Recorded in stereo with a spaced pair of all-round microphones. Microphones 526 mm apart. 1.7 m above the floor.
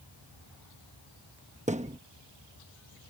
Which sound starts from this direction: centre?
A thud, at 1.7 s.